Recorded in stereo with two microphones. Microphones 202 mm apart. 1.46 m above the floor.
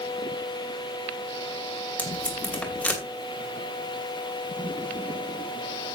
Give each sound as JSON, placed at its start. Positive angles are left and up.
{"t": 2.0, "sound": "tape being pulled", "side_deg": 5, "distance_m": 2.5}